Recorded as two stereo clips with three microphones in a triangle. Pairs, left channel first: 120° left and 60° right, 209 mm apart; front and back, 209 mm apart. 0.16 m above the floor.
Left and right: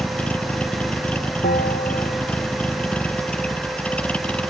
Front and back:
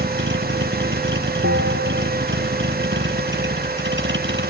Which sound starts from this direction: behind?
A bell, at 1.4 s.